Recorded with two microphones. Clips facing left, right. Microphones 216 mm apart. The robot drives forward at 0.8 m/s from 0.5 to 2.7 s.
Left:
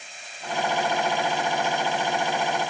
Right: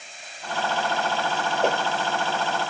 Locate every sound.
1.6 s a whoosh: 70° right (ahead or behind)